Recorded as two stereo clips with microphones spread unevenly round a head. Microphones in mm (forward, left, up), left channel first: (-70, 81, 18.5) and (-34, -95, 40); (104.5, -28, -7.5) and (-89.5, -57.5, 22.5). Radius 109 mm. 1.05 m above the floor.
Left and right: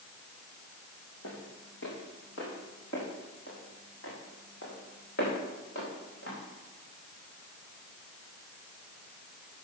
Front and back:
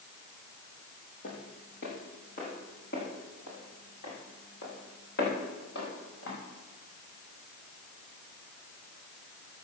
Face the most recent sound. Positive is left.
turn(degrees=55)